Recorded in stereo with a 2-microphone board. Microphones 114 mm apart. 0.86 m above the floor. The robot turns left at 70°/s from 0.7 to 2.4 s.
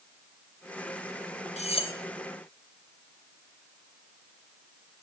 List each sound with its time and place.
1.6 s cutlery clinking: 70° left (ahead or behind), 0.7 m; by 1.9 s 50° left (ahead or behind), 0.7 m